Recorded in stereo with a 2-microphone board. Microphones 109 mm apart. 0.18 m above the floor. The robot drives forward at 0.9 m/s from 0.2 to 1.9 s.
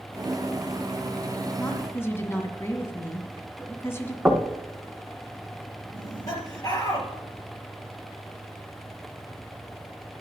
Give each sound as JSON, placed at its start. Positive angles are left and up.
{"t": 1.6, "sound": "a woman speaking", "side_deg": 20, "distance_m": 2.0}
{"t": 4.2, "sound": "knocking", "side_deg": -10, "distance_m": 1.1}
{"t": 5.9, "sound": "laughter", "side_deg": 35, "distance_m": 4.0}